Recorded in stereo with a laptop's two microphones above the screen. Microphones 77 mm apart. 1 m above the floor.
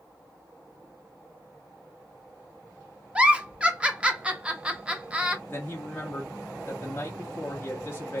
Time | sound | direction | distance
3.1 | a giggle | 15° right (ahead or behind) | 0.6 m
5.5 | a man speaking | 30° left (ahead or behind) | 0.6 m